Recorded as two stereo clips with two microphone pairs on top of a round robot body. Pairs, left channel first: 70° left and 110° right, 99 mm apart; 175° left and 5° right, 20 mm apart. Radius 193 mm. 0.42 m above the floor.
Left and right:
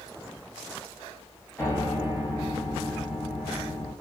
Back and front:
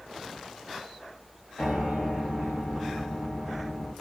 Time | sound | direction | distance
1.6 | a piano | 140° left | 0.8 m